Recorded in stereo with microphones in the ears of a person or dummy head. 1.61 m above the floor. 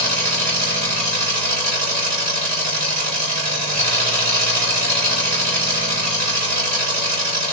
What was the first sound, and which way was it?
An engine running, 45° right (ahead or behind).